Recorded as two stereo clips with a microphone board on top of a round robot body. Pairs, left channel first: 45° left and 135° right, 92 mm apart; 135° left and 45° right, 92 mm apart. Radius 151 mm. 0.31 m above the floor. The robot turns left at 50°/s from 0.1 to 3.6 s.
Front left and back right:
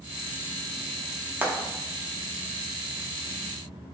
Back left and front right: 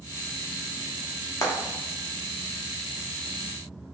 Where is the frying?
165° left, 0.8 m; by 1.5 s 160° left, 0.8 m.